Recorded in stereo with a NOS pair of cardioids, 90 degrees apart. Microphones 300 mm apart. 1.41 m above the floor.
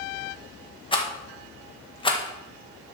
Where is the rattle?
15° left, 1.7 m.